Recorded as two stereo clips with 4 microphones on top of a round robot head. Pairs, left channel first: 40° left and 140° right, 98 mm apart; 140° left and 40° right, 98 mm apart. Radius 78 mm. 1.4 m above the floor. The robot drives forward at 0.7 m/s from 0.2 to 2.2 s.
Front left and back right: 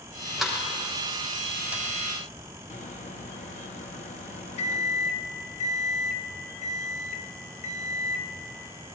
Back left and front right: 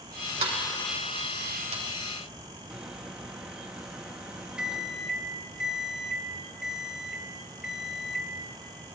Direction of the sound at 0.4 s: 50° right.